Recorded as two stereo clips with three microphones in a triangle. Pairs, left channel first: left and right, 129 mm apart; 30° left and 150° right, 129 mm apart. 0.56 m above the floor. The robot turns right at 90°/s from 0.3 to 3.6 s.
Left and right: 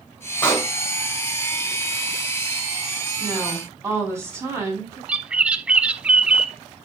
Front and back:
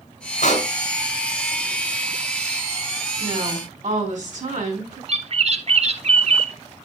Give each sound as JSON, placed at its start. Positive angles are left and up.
{"t": 0.4, "sound": "a pop", "azimuth_deg": 15, "distance_m": 3.5}
{"t": 3.2, "sound": "a woman speaking", "azimuth_deg": 165, "distance_m": 4.5}
{"t": 5.1, "sound": "a bird", "azimuth_deg": -170, "distance_m": 0.6}